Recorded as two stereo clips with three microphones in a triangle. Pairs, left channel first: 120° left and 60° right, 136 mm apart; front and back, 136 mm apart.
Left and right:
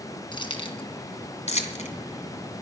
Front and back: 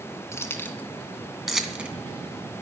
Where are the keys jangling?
70° left, 2.5 m; by 1.9 s 100° left, 2.5 m.